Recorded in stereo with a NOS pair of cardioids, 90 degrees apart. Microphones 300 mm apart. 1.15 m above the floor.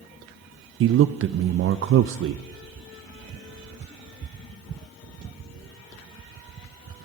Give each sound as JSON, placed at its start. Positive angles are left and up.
{"t": 0.8, "sound": "a man speaking", "azimuth_deg": -45, "distance_m": 0.5}